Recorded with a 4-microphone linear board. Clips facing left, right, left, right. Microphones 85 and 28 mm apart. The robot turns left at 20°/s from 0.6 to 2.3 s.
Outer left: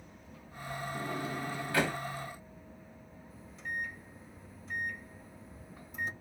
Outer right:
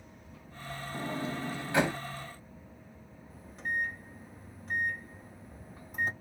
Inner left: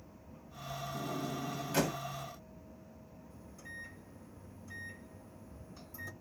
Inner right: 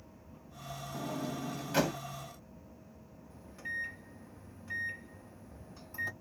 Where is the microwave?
60° right (ahead or behind), 2 m.